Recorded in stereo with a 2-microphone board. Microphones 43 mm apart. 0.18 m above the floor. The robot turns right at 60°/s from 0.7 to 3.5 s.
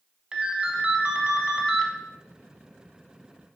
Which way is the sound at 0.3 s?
20° right (ahead or behind).